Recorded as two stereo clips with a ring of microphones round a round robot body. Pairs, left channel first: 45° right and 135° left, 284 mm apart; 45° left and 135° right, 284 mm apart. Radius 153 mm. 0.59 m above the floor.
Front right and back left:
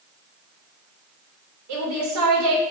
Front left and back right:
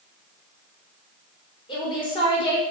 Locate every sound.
1.7 s a woman speaking: 115° left, 2.5 m